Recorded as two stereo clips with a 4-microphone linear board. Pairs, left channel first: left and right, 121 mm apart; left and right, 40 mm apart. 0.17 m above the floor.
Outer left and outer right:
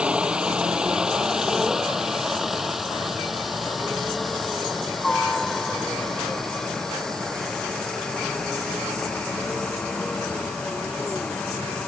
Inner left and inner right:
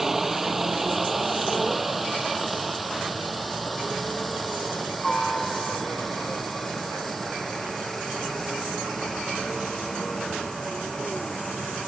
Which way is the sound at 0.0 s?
10° right (ahead or behind).